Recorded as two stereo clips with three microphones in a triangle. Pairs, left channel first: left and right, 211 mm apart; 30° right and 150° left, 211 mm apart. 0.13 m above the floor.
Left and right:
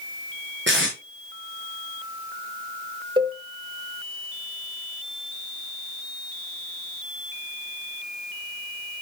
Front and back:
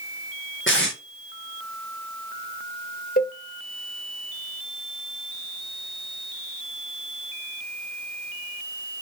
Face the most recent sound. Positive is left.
turn(degrees=-30)